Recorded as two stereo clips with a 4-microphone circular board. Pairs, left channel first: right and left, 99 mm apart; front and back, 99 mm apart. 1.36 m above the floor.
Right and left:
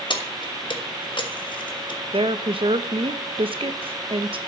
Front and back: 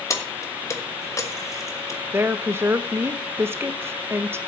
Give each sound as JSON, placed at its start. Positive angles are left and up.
{"t": 0.1, "sound": "keys jangling", "azimuth_deg": -60, "distance_m": 1.5}
{"t": 2.1, "sound": "a woman speaking", "azimuth_deg": 115, "distance_m": 1.1}